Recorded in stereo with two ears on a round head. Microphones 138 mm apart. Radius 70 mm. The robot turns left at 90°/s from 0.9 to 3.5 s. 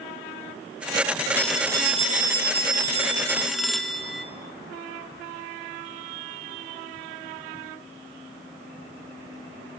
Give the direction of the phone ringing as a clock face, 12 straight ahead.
12 o'clock.